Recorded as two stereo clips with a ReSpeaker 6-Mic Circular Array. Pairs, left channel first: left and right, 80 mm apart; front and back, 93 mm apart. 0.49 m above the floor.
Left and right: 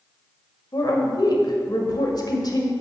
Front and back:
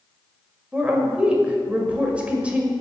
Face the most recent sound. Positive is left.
turn(degrees=105)